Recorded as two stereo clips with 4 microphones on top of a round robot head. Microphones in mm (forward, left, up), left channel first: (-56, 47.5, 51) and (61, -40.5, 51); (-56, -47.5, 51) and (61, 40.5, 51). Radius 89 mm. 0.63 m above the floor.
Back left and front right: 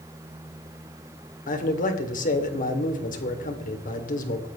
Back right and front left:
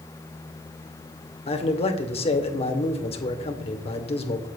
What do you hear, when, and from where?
1.5 s a man speaking: 170° left, 2 m